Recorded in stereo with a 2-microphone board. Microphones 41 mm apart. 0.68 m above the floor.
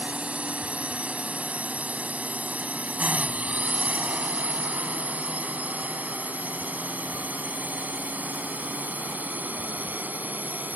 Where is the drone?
30° right (ahead or behind); by 10.8 s 45° right (ahead or behind).